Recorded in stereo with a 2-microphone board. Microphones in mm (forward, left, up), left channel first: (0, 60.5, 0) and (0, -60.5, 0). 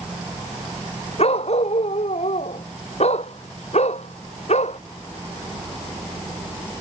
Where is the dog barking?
60° left (ahead or behind); by 4.8 s 65° left (ahead or behind).